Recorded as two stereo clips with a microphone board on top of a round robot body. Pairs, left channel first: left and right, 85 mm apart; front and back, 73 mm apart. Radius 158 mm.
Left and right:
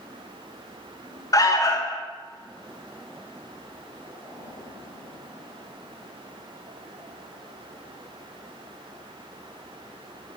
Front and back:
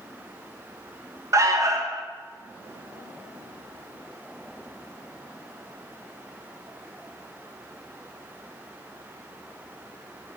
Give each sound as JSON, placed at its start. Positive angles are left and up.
{"t": 1.3, "sound": "an alarm", "azimuth_deg": 135, "distance_m": 1.3}